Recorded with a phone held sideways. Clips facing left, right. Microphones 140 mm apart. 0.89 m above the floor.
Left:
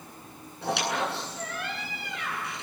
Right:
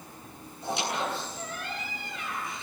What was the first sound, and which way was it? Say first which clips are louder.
A squeak: left 2 dB; 75° left (ahead or behind).